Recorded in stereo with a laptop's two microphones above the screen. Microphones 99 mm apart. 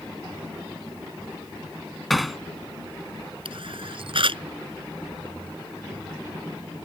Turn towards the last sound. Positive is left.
turn(degrees=-60)  # may be behind; listen again after turning